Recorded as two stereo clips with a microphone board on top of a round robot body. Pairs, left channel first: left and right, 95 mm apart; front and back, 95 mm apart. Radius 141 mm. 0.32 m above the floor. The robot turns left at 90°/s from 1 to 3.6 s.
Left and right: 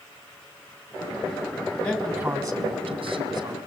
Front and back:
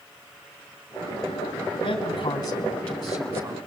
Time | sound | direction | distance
1.8 | a man speaking | 25° left | 3 m